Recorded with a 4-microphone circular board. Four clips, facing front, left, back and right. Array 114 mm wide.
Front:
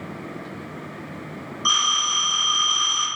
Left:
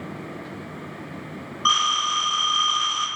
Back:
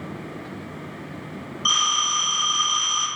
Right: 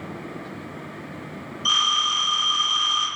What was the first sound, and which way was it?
A phone ringing, 85° left.